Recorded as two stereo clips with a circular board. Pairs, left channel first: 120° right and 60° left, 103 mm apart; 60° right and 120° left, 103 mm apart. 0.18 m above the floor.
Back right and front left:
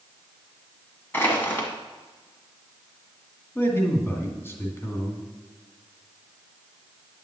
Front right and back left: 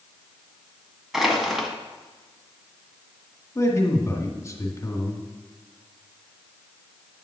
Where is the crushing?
160° right, 1.7 m.